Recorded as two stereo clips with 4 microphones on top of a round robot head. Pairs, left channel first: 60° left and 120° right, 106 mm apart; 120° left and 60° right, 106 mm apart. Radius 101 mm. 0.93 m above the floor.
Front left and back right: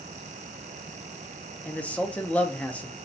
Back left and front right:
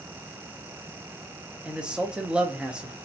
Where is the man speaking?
10° left, 0.6 m.